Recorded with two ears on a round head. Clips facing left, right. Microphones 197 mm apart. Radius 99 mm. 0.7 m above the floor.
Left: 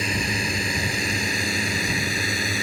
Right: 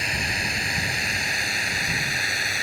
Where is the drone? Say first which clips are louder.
Left 5 dB; 75° left (ahead or behind).